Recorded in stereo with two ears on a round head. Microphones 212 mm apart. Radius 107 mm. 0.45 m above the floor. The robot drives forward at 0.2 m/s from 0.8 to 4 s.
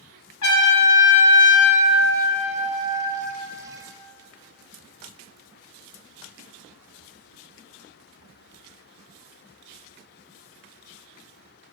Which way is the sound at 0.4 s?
75° left (ahead or behind).